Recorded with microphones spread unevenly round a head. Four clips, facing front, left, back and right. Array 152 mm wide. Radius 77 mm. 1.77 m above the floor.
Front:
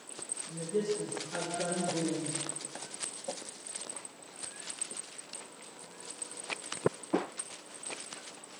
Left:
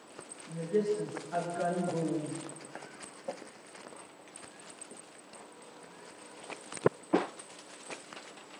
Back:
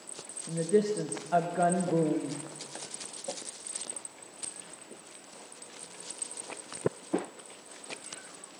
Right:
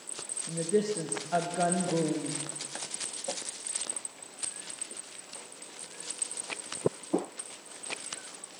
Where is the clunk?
No clunk in this recording.